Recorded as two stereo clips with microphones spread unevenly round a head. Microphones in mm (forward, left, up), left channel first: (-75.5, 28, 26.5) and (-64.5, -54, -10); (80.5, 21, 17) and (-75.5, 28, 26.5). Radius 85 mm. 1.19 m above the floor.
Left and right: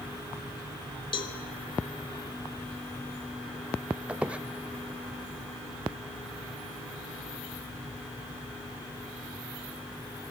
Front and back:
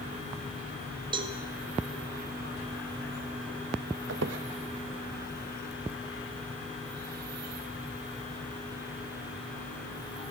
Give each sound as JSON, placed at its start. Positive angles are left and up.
{"t": 1.1, "sound": "a cowbell", "azimuth_deg": 115, "distance_m": 1.8}
{"t": 4.1, "sound": "a squeak", "azimuth_deg": -160, "distance_m": 1.0}